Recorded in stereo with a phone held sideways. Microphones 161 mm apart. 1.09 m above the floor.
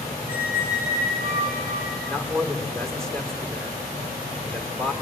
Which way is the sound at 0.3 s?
75° left (ahead or behind).